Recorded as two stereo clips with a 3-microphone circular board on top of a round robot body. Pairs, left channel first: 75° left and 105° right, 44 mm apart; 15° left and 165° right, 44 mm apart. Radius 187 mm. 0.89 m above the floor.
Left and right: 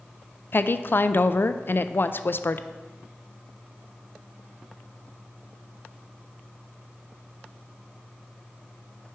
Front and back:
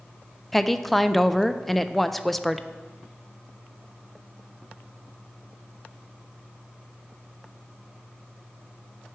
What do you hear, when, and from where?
0.5 s a woman speaking: 105° left, 0.5 m